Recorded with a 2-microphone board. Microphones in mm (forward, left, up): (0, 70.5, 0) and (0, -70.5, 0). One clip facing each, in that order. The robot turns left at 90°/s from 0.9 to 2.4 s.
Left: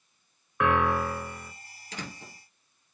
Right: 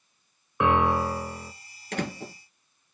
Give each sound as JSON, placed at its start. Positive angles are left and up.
{"t": 0.6, "sound": "a piano", "azimuth_deg": -45, "distance_m": 1.0}
{"t": 1.9, "sound": "a door slam", "side_deg": -60, "distance_m": 1.5}